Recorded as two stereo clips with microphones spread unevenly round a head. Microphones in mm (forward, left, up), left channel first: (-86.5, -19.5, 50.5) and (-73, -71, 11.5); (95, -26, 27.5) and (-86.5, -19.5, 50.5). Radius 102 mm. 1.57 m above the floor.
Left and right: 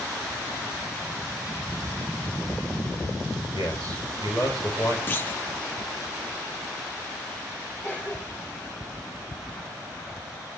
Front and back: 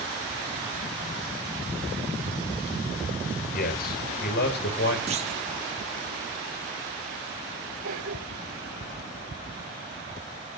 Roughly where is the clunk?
Behind left.